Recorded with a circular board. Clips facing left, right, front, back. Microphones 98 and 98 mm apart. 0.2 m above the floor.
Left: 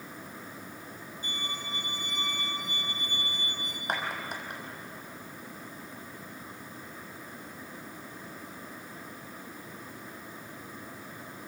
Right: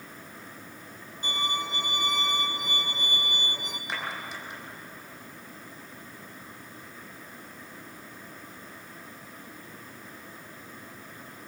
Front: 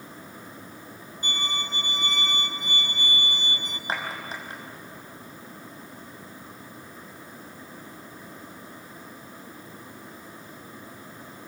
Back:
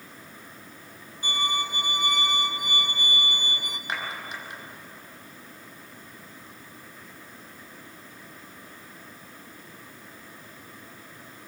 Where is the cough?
No cough in this recording.